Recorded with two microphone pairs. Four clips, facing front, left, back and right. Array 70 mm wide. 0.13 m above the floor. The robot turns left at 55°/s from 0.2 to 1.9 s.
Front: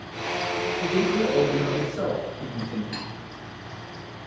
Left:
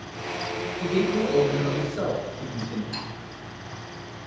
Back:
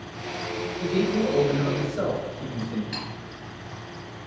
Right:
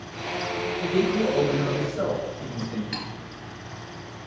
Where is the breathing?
I don't hear breathing.